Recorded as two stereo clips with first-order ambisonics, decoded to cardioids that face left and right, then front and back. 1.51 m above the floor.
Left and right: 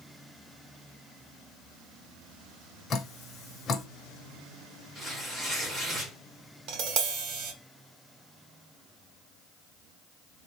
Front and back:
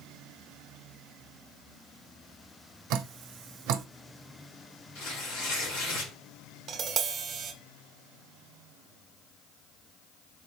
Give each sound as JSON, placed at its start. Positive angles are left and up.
{"t": 2.9, "sound": "dripping", "azimuth_deg": 155, "distance_m": 0.6}
{"t": 5.0, "sound": "tearing paper", "azimuth_deg": -15, "distance_m": 2.5}
{"t": 6.7, "sound": "tapping", "azimuth_deg": -120, "distance_m": 0.8}